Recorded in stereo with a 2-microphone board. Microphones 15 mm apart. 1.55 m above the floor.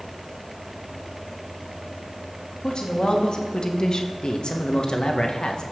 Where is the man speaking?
60° left (ahead or behind), 1.6 m.